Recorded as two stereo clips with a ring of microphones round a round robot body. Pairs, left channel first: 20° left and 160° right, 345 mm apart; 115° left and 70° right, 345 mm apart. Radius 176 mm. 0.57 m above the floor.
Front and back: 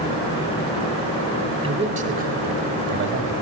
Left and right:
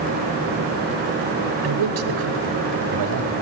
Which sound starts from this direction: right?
A man speaking, at 1.6 s.